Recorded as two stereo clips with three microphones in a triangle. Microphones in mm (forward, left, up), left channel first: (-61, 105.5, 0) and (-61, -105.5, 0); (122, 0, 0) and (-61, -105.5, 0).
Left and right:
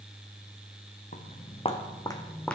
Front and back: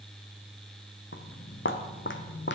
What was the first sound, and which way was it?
Footsteps, 45° left.